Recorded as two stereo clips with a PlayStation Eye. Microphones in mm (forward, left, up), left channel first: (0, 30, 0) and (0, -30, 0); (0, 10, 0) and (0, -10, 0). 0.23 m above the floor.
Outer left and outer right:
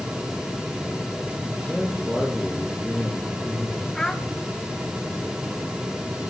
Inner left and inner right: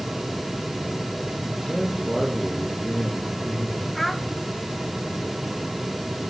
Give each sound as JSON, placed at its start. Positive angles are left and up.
{"t": 1.4, "sound": "a man speaking", "side_deg": -5, "distance_m": 9.0}
{"t": 4.0, "sound": "a child speaking", "side_deg": 10, "distance_m": 1.0}